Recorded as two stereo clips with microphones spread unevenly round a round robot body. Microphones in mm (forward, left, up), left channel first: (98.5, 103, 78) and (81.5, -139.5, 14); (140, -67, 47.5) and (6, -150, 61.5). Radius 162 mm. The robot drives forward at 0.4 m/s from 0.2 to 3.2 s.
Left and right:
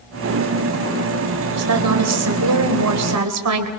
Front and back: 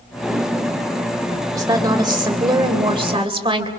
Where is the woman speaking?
80° right, 3.5 m; by 3.7 s 90° right, 3.5 m.